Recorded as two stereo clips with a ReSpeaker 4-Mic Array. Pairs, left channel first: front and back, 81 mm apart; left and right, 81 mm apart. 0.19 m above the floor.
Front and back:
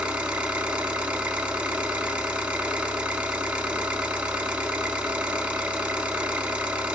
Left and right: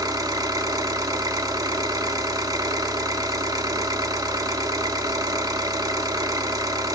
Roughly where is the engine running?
Right.